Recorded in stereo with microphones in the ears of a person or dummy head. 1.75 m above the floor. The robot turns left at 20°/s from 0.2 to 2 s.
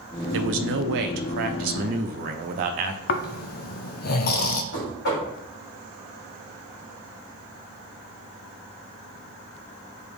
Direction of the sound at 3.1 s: 50° left (ahead or behind).